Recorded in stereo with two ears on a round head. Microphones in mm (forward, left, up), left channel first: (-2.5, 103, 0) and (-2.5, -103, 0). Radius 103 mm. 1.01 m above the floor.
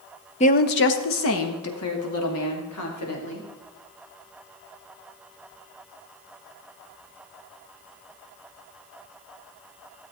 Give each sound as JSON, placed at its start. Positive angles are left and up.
{"t": 0.4, "sound": "a woman speaking", "side_deg": 30, "distance_m": 0.7}